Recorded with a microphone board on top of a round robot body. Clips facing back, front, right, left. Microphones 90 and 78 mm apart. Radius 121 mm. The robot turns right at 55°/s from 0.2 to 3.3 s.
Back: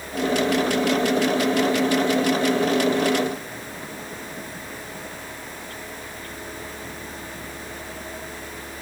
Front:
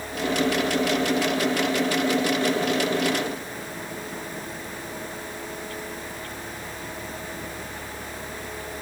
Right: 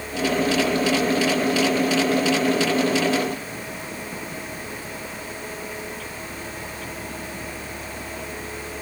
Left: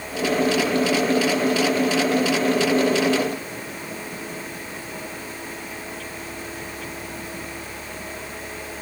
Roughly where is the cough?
I don't hear a cough.